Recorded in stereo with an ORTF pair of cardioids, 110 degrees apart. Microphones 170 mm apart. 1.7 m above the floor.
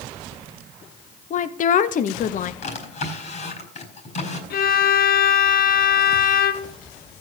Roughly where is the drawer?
Ahead left.